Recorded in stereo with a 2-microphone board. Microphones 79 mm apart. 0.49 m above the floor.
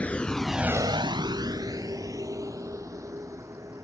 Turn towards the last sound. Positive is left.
turn(degrees=-40)  # may be behind; listen again after turning